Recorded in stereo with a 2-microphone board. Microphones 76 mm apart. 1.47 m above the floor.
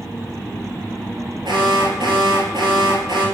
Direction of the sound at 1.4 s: 85° right.